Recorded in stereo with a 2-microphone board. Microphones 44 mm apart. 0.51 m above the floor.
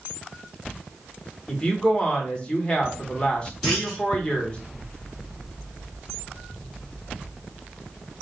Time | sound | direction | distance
1.5 | a woman speaking | 25° left (ahead or behind) | 1.1 m
3.6 | a clunk | centre (ahead or behind) | 1.8 m